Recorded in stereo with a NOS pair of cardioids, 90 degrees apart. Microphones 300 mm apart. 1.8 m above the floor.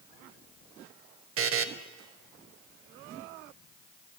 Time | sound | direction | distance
1.4 | a buzzer | 50° right | 0.7 m